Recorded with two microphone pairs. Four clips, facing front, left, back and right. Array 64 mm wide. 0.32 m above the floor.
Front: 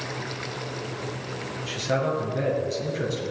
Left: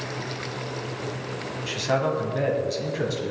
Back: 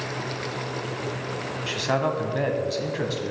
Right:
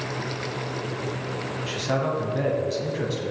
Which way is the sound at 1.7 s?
170° left.